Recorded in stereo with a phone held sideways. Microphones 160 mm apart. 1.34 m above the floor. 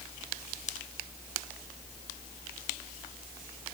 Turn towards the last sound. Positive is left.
No sound to turn to.